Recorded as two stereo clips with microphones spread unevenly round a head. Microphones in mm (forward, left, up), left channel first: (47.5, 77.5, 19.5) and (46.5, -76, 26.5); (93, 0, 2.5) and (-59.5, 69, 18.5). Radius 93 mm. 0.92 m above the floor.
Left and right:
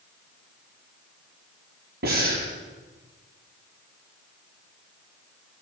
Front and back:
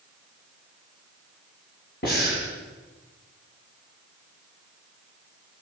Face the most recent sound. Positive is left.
turn(degrees=-70)